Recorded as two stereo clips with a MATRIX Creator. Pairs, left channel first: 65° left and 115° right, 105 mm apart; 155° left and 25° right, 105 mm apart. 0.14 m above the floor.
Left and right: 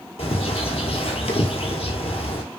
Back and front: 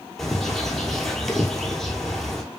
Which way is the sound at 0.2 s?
70° left.